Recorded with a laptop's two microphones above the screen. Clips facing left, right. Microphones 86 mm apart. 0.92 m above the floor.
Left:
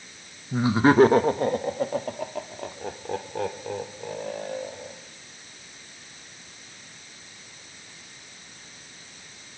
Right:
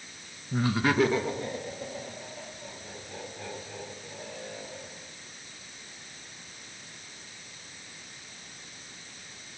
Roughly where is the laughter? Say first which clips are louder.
Left 7 dB; centre.